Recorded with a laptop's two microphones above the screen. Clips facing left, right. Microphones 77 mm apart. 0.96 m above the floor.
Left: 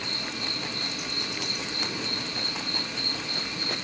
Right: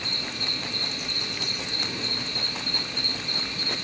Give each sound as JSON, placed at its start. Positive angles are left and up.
{"t": 0.0, "sound": "an insect", "side_deg": 10, "distance_m": 9.5}